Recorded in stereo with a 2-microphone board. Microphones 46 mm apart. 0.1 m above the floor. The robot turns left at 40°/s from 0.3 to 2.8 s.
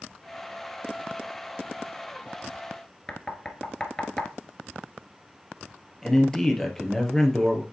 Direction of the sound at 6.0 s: 10° left (ahead or behind).